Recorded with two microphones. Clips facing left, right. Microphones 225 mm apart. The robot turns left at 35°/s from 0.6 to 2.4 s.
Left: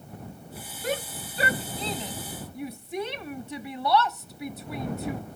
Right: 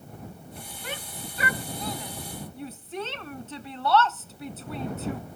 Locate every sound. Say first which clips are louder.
0.8 s a shout: left 9 dB; 45° left (ahead or behind); by 5.2 s 15° left (ahead or behind)